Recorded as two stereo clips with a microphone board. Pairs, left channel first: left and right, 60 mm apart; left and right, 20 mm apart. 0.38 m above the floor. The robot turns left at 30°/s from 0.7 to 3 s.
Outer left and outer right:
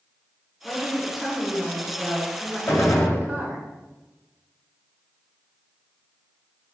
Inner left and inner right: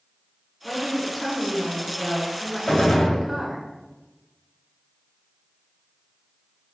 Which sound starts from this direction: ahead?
A woman speaking, at 0.6 s.